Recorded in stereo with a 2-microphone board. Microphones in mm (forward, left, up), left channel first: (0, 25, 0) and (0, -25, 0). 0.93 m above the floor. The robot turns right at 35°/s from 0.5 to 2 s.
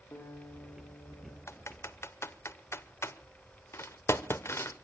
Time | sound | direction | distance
0.1 | a guitar | 110° left | 7 m
1.5 | typing on a keyboard | 60° left (ahead or behind) | 0.9 m